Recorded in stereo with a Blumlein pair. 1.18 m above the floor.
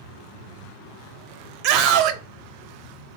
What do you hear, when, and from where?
1.6 s a scream: 35° right, 0.7 m